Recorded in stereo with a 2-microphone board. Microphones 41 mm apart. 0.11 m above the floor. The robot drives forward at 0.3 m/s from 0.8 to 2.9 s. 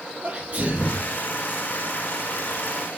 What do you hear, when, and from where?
0.2 s a sneeze: 35° right (ahead or behind), 2.5 m; by 1.1 s 30° right (ahead or behind), 2.5 m